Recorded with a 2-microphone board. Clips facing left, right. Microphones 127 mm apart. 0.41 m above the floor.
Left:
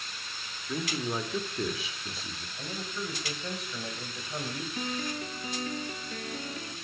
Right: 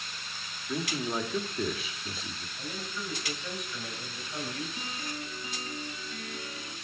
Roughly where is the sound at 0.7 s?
Centre.